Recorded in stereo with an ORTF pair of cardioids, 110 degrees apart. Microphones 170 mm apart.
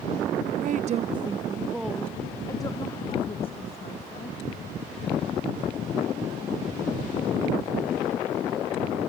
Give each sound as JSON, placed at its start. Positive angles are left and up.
{"t": 0.6, "sound": "a woman speaking", "azimuth_deg": -55, "distance_m": 0.7}